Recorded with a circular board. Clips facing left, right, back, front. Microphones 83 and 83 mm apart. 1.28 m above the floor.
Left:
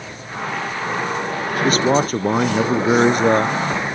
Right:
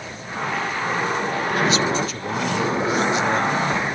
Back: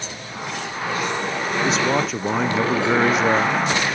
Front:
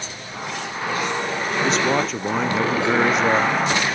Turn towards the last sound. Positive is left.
turn(degrees=95)